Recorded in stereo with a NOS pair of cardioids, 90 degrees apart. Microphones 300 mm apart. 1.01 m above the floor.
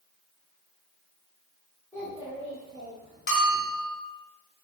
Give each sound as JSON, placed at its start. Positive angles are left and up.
{"t": 1.9, "sound": "a child speaking", "azimuth_deg": 5, "distance_m": 1.1}
{"t": 3.3, "sound": "a bell", "azimuth_deg": 35, "distance_m": 1.1}